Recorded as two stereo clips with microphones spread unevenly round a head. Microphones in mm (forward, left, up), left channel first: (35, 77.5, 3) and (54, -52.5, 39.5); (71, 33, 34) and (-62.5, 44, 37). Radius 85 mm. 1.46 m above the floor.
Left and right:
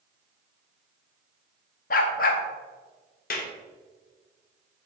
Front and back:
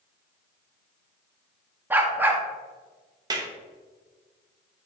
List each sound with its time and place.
1.9 s a dog barking: 105° left, 1.1 m
3.3 s a clap: 115° left, 1.5 m